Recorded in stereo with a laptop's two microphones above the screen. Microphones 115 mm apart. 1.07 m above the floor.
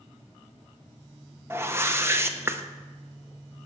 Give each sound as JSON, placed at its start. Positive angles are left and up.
{"t": 1.5, "sound": "a whoosh", "side_deg": -20, "distance_m": 0.6}